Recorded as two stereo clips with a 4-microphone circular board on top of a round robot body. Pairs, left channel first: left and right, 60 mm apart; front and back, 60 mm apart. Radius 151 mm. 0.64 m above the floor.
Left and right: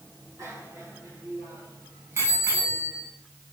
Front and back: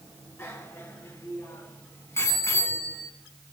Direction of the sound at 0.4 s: 50° right.